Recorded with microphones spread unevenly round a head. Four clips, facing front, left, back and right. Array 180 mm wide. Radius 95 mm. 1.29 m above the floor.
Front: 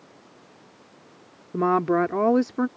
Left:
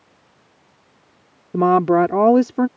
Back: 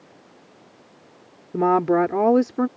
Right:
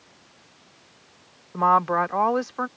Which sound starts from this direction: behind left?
A woman speaking, at 1.5 s.